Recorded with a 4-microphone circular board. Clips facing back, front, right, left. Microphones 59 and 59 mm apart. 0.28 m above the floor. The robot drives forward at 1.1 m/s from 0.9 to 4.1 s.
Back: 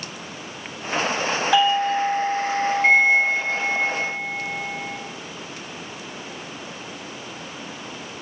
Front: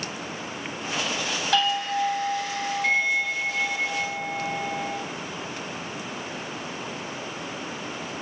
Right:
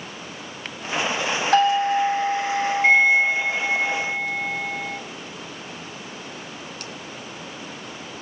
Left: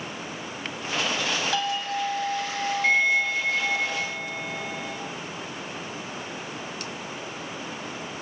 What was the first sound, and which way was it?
A doorbell, 115° right.